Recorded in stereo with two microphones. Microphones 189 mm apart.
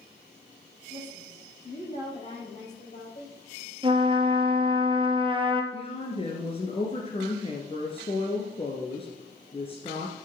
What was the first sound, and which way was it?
A woman speaking, 30° left (ahead or behind).